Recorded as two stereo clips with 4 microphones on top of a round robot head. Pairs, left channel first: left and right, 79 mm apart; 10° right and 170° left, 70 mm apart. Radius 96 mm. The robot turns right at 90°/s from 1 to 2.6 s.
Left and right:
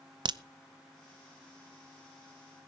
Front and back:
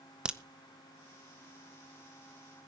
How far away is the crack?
About 0.7 m.